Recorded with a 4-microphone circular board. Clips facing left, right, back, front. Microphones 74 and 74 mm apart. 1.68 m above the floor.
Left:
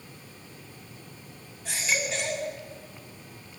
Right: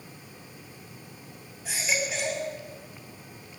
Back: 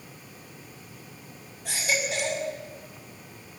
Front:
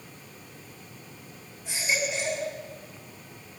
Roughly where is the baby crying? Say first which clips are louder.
Even, even; behind.